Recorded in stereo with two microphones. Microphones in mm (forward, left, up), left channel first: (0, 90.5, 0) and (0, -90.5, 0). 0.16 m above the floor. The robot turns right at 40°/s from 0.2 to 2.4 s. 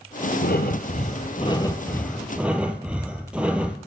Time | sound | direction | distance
0.4 | breathing | 105° left | 0.9 m